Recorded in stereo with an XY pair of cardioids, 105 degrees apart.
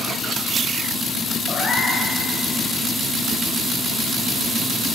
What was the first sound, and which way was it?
A cat meowing, 30° left.